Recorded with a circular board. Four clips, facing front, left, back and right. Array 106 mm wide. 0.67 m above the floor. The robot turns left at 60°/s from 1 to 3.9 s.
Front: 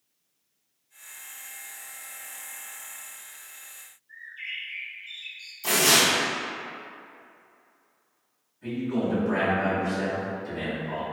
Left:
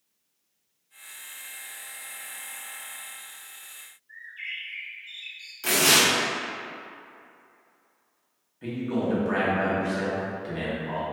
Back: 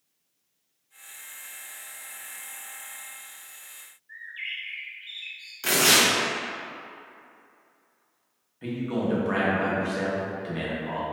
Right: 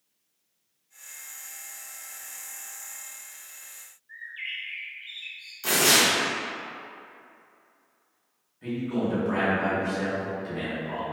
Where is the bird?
145° right, 0.5 m.